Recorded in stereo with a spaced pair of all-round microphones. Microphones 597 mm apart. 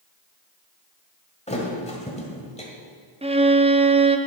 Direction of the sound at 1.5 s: 10° left (ahead or behind).